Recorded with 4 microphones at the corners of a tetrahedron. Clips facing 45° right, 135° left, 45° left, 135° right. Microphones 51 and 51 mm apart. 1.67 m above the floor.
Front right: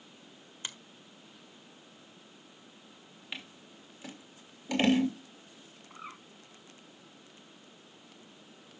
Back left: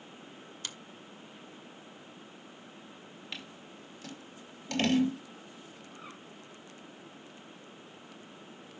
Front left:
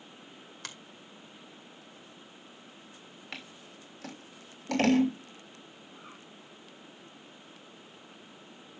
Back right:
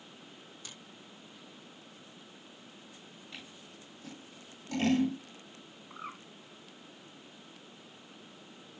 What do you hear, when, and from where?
0.6 s a finger snap: 25° left, 1.6 m
3.3 s scissors: 30° left, 2.5 m
5.9 s a bird: 110° right, 3 m